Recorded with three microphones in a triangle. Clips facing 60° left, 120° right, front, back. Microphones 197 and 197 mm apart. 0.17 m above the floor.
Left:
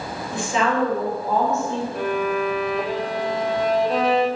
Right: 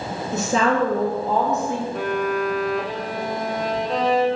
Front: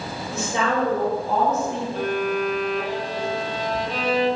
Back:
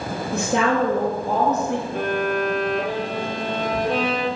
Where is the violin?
150° left, 1.8 m.